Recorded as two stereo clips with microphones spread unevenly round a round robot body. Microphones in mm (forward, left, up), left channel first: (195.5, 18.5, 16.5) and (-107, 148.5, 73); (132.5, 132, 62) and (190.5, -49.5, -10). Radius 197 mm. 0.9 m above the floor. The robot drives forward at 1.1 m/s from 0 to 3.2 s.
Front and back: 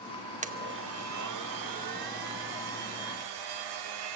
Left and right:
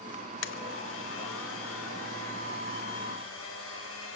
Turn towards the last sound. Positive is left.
turn(degrees=160)